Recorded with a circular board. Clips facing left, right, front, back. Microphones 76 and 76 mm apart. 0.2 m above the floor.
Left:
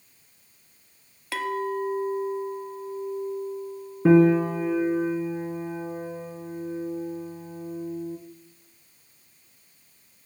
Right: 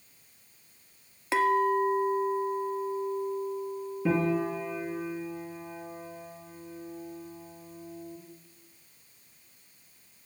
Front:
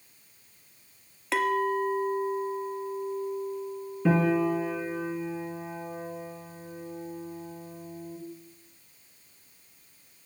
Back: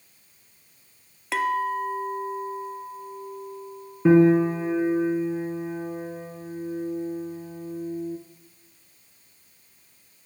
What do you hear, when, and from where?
1.3 s a clink: 90° right, 0.6 m
4.0 s a piano: 115° left, 1.1 m